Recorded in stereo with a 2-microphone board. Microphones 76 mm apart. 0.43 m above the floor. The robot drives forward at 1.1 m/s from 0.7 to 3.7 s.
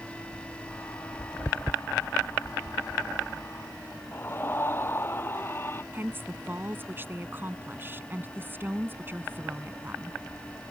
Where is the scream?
30° left (ahead or behind).